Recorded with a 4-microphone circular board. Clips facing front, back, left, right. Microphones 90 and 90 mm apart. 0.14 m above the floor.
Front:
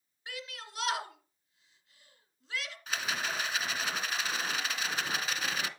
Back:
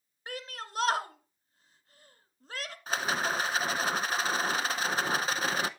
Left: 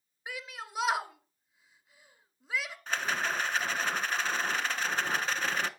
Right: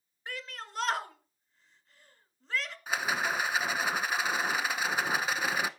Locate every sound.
0.3 s a shout: 170° left, 1.7 m
2.9 s a rattle: 160° right, 0.7 m